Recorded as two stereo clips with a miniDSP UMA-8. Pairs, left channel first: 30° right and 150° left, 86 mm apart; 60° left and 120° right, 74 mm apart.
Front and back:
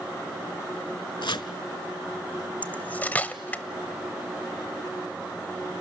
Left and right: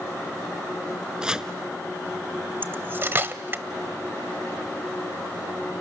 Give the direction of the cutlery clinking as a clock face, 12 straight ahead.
3 o'clock.